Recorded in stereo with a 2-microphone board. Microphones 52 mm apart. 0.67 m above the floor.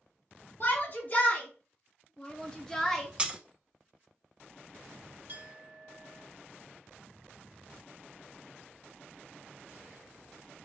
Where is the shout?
45° left (ahead or behind), 2 m; by 3.1 s 5° left (ahead or behind), 1.2 m.